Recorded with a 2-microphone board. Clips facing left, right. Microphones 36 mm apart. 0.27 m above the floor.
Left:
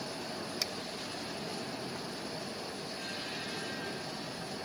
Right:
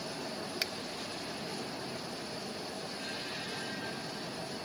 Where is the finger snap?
30° right (ahead or behind), 1.0 m.